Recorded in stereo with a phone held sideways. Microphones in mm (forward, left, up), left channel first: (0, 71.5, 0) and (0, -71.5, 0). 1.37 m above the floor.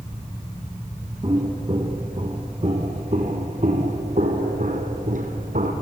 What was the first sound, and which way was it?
Footsteps, 35° right (ahead or behind).